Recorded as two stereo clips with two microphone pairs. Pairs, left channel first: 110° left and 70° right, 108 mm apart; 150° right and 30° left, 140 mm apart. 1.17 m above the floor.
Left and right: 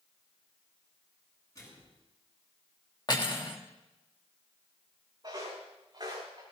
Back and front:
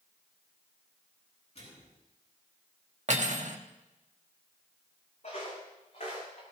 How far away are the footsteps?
About 6.5 m.